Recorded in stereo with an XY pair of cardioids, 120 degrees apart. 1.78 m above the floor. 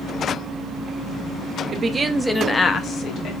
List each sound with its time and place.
1.7 s a woman speaking: 35° right, 0.8 m; by 3.3 s 70° left, 0.9 m